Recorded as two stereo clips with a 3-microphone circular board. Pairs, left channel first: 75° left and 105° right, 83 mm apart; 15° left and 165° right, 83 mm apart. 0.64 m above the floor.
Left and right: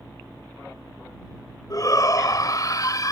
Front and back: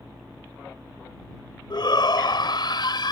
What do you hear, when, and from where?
1.7 s a shout: 35° left